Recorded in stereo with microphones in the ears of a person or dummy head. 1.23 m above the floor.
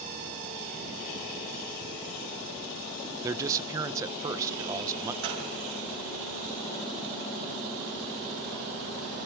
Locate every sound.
3.2 s a man speaking: 15° right (ahead or behind), 0.6 m
5.2 s a gunshot: 70° right (ahead or behind), 5.5 m